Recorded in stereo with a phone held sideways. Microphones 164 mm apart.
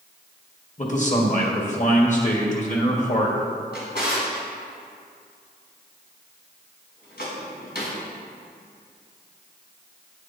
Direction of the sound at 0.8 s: 50° left (ahead or behind).